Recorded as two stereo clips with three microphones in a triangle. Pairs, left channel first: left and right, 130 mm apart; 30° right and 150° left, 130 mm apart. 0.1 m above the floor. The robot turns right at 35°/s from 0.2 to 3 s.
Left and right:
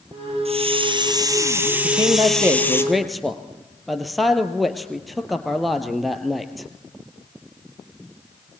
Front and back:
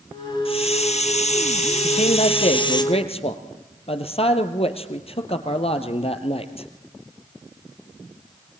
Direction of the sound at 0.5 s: 65° right.